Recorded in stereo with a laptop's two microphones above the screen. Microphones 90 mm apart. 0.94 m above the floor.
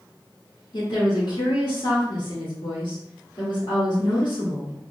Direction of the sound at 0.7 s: 65° left (ahead or behind).